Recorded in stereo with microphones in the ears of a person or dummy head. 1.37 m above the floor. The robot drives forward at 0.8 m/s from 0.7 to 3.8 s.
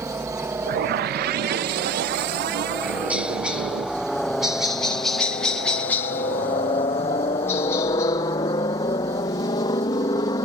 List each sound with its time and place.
0.0 s a helicopter: 15° right (ahead or behind); by 10.4 s 25° left (ahead or behind)